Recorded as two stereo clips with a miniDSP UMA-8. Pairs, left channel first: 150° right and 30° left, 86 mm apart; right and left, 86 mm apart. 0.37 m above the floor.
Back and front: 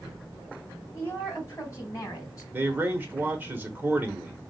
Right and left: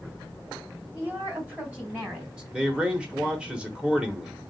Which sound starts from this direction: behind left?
A woman speaking, at 0.9 s.